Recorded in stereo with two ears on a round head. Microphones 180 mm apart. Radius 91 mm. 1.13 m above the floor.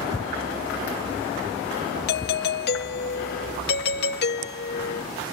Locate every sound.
2.1 s a doorbell: 55° left (ahead or behind)